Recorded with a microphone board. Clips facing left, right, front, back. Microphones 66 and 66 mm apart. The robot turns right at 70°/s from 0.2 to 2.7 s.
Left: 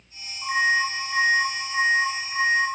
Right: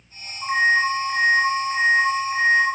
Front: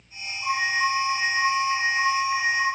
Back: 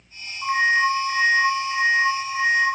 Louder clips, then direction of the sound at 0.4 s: Right 3 dB, back 5 dB; 150° right.